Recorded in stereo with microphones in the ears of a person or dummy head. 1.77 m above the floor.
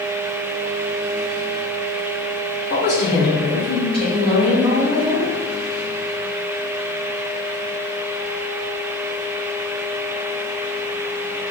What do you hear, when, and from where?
2.7 s a woman speaking: 55° left (ahead or behind), 0.8 m; by 5.3 s 5° right (ahead or behind), 2 m